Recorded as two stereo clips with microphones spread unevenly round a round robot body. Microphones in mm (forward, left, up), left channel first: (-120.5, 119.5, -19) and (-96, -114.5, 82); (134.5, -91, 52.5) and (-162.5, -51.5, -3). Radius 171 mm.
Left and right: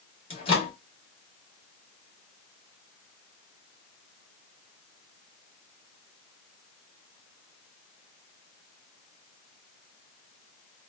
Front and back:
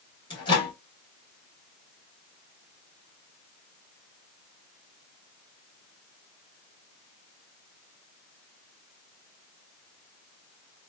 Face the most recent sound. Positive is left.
turn(degrees=75)